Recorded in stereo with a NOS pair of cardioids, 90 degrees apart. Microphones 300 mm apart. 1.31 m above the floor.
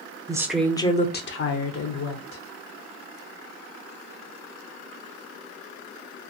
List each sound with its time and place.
0.3 s a woman speaking: 15° right, 0.7 m; by 2.4 s 75° left, 1.2 m